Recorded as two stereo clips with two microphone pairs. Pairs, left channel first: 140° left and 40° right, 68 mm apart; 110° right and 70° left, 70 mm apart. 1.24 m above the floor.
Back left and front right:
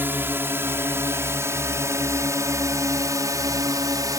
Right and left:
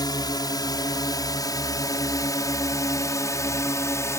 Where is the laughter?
I don't hear laughter.